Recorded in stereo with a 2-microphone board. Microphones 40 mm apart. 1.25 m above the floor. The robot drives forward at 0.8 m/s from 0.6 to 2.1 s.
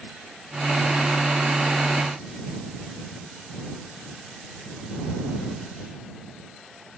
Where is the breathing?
I don't hear breathing.